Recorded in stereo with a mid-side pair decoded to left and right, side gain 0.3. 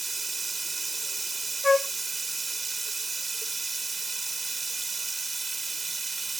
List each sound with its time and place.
0.0 s running water: 40° right
1.6 s a flute: 30° left